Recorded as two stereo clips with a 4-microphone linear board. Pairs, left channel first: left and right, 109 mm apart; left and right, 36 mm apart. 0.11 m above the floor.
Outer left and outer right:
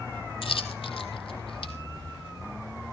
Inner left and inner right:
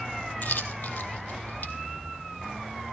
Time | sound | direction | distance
0.4 | a dropped coin | 55° left (ahead or behind) | 1.8 m